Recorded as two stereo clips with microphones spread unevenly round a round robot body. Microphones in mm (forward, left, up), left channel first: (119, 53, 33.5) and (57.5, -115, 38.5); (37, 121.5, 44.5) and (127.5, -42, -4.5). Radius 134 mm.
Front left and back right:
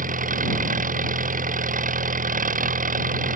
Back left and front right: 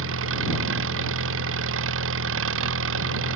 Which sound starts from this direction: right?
An engine running, at 0.0 s.